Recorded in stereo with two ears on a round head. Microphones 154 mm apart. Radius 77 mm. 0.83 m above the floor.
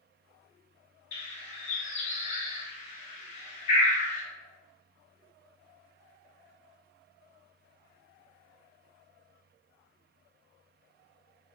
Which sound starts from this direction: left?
A bird, at 1.1 s.